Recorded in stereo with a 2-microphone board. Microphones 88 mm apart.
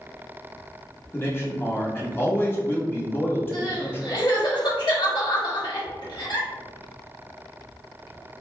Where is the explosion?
No explosion in this recording.